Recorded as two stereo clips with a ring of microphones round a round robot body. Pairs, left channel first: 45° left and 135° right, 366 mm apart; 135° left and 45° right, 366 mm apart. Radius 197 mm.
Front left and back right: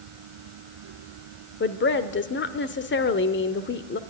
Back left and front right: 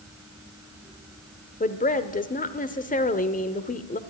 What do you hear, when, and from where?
1.6 s a woman speaking: 80° left, 1.0 m